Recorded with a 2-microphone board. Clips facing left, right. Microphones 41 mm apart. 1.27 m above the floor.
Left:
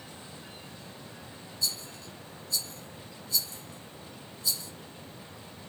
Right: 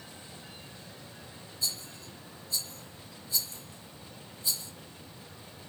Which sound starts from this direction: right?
A rattle, at 1.6 s.